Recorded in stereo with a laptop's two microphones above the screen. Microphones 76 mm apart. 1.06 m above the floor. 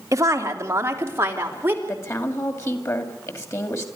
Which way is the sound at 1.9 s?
40° left (ahead or behind).